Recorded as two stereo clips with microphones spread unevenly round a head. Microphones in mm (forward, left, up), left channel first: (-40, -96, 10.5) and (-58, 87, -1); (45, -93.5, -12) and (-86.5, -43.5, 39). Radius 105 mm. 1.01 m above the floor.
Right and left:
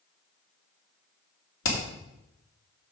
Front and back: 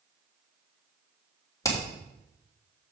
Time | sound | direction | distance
1.6 | hammering | 85° right | 2.5 m